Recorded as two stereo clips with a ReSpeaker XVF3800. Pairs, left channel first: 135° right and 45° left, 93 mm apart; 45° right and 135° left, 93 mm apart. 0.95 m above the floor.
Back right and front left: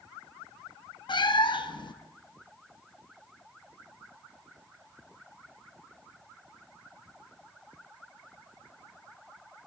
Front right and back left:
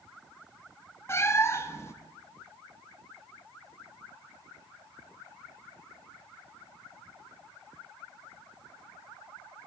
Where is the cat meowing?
105° right, 0.5 m.